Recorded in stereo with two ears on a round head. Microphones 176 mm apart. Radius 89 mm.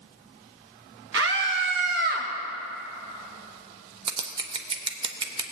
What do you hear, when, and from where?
1.1 s a scream: 55° right (ahead or behind), 2 m; by 2.3 s 40° right (ahead or behind), 2.5 m
4.1 s scissors: 25° right (ahead or behind), 0.8 m